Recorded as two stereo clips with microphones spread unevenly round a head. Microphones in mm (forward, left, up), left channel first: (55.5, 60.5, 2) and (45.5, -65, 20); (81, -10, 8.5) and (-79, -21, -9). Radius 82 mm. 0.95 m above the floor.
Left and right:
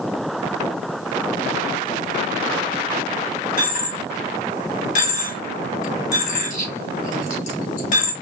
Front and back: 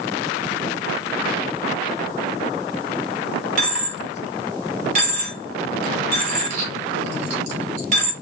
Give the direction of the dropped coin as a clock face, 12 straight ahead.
8 o'clock.